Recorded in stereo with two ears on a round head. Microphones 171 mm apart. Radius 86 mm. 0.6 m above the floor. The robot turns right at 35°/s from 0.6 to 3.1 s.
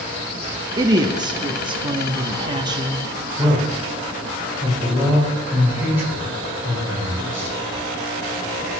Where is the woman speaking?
20° right (ahead or behind), 0.6 m.